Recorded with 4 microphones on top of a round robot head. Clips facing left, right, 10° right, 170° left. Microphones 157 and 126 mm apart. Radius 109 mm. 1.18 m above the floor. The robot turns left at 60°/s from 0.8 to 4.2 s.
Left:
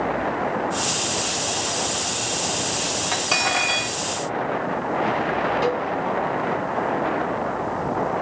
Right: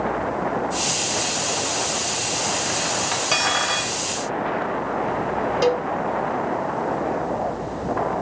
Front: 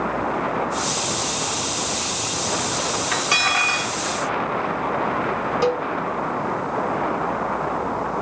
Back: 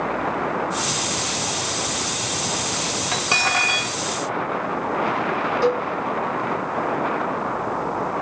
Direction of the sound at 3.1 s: 175° right.